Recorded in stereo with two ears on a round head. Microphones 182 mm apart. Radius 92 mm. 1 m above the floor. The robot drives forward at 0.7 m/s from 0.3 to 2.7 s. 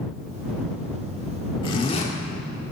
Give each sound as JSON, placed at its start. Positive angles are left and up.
{"t": 1.6, "sound": "a zipper", "side_deg": 25, "distance_m": 1.8}